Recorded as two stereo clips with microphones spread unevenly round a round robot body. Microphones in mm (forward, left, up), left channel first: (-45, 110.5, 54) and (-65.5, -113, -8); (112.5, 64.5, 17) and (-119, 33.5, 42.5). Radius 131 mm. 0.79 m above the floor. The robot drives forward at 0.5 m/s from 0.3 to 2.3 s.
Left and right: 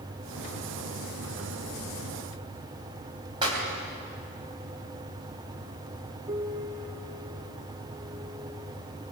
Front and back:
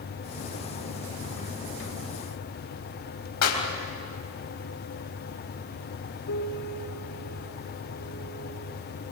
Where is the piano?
25° right, 2.5 m.